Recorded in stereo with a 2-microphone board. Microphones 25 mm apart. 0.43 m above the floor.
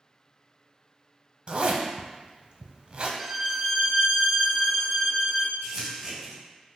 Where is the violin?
5° right (ahead or behind), 0.6 m.